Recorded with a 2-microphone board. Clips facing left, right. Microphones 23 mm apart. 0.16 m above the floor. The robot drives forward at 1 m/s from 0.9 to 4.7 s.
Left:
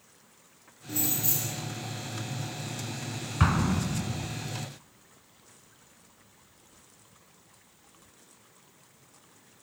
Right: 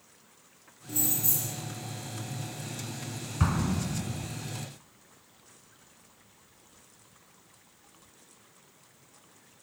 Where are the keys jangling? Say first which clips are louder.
Left 1 dB; 30° left (ahead or behind), 1.9 m; by 1.6 s 25° left (ahead or behind), 2.5 m.